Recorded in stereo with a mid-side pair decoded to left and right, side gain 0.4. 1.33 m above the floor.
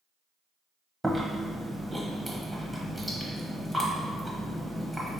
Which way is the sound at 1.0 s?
10° right.